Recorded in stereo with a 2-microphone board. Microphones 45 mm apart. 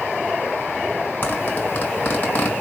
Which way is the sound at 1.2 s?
50° left (ahead or behind).